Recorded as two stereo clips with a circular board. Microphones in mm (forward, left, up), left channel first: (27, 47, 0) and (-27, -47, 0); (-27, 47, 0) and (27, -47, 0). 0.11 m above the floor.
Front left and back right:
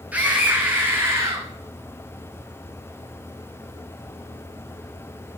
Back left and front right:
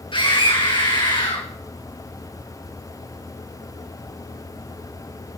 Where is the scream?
165° left, 7 m; by 1.5 s 175° left, 6.5 m.